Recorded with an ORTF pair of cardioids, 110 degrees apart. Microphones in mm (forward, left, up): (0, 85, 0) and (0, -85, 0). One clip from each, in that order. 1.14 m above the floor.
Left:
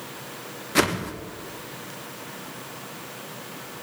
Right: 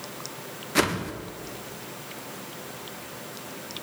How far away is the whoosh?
About 0.6 m.